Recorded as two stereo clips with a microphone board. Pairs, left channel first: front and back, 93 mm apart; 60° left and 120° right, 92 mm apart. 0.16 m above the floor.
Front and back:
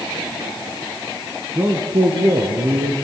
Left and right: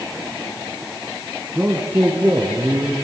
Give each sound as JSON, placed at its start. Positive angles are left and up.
{"t": 1.6, "sound": "a man speaking", "azimuth_deg": 170, "distance_m": 1.5}